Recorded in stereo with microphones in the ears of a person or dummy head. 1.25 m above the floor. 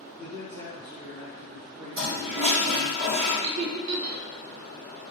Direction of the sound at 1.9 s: 55° right (ahead or behind).